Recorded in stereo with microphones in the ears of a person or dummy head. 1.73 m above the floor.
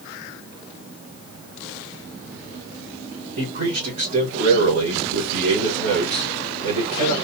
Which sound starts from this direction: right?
A man speaking, at 3.4 s.